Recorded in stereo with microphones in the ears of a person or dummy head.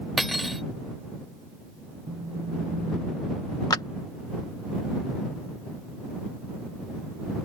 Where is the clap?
15° left (ahead or behind).